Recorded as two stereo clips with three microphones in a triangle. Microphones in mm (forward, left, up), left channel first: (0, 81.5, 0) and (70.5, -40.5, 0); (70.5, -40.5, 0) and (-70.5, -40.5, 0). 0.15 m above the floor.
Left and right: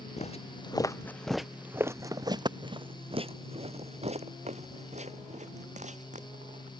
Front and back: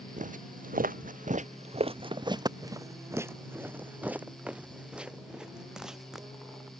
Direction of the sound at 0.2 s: 155° left.